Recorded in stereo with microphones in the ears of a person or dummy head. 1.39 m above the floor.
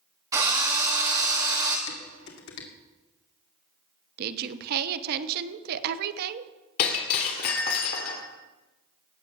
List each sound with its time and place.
0.3 s a drill: 20° right (ahead or behind), 2.5 m
1.9 s dishes clattering: 70° left (ahead or behind), 2.5 m
4.2 s a woman speaking: 60° right (ahead or behind), 1.1 m
6.8 s breaking glass: 50° left (ahead or behind), 2.5 m